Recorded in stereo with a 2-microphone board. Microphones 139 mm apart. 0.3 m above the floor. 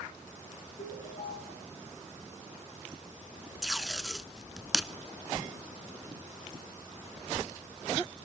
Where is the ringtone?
70° left (ahead or behind), 8.5 m.